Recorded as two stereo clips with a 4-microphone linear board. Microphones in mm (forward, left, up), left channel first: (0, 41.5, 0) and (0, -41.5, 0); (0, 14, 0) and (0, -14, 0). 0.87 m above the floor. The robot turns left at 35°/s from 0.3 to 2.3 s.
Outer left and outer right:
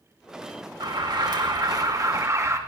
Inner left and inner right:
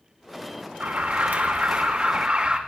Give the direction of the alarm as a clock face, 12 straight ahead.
3 o'clock.